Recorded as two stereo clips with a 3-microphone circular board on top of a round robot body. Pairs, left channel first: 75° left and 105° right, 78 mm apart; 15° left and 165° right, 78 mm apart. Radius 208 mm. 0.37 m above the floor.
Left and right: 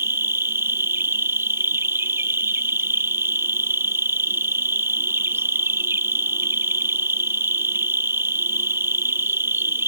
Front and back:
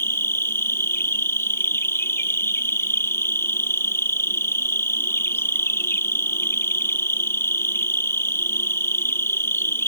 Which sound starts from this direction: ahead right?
An insect, at 0.0 s.